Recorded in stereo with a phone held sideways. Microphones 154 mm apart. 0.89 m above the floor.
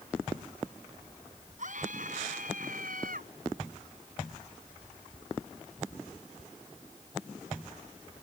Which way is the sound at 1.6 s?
60° right (ahead or behind).